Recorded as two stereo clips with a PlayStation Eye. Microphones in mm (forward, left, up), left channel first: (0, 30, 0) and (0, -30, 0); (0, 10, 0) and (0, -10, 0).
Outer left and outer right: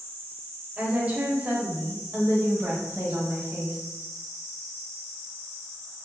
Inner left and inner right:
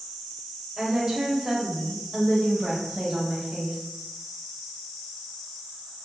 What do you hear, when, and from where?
0.8 s a woman speaking: 25° right (ahead or behind), 1.1 m; by 3.8 s 35° right (ahead or behind), 1.6 m